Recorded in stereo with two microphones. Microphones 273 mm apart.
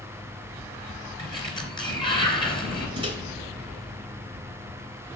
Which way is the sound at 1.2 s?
15° left (ahead or behind).